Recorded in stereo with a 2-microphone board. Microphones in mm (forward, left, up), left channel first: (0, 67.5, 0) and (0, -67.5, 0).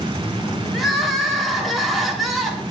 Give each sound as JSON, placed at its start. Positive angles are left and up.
{"t": 0.7, "sound": "crying", "side_deg": 0, "distance_m": 2.0}